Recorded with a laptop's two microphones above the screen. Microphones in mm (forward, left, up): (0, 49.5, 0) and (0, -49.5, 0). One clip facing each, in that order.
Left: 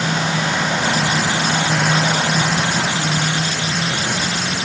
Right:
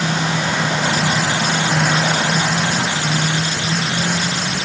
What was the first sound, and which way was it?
Only background noise.